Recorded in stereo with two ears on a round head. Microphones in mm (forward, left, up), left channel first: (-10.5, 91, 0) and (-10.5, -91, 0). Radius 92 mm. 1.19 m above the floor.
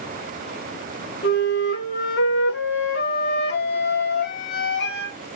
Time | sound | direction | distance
1.2 | a flute | 55° left (ahead or behind) | 1.2 m